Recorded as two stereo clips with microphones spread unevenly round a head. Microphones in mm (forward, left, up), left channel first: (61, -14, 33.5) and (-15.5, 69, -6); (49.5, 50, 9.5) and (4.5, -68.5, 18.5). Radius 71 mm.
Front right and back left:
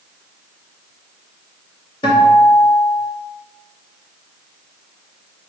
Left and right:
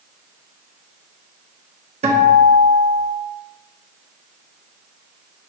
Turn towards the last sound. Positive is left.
turn(degrees=-85)